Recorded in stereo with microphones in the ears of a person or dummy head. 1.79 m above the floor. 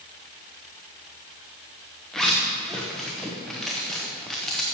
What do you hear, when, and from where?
2.1 s a zipper: 5° left (ahead or behind), 0.8 m